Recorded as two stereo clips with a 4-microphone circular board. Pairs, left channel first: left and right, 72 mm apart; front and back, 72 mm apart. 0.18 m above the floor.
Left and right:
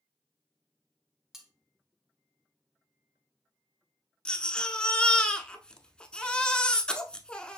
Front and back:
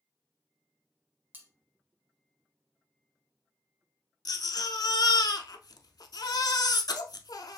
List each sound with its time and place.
1.3 s cutlery clinking: 165° right, 0.9 m
4.2 s a baby crying: 15° left, 0.6 m